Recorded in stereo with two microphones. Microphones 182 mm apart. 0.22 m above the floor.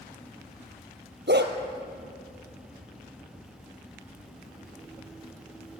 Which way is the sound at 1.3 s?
70° right (ahead or behind).